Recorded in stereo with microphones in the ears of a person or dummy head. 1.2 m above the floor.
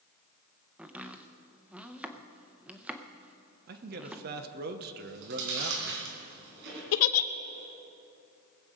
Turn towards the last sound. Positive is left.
turn(degrees=75)  # may be behind; listen again after turning